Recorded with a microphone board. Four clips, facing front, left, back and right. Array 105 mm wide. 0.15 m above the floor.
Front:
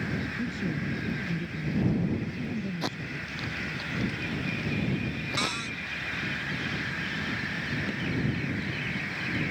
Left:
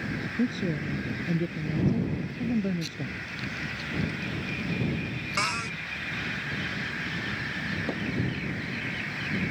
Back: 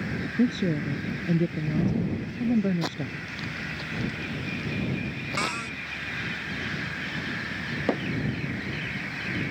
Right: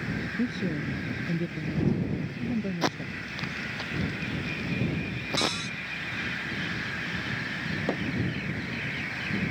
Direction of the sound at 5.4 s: 115° left.